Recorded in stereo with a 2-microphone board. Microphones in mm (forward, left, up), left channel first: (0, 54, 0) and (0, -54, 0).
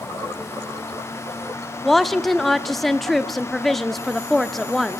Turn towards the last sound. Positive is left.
turn(degrees=0)  # may be behind; listen again after turning